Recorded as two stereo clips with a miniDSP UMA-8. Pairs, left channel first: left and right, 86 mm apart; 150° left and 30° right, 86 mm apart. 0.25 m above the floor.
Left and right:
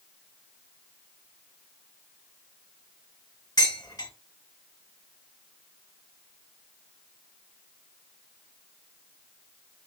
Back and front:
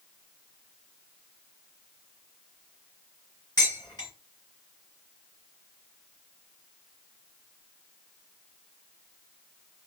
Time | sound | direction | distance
3.6 | dishes clattering | 120° left | 2.5 m